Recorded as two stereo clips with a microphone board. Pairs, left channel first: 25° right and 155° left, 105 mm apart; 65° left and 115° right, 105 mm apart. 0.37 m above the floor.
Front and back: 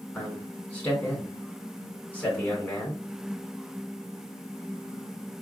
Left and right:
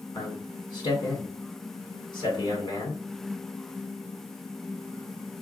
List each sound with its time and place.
0.1 s a man speaking: 50° left, 1.6 m